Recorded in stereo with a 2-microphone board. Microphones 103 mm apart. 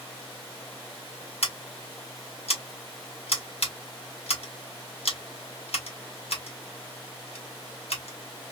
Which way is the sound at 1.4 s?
75° left (ahead or behind).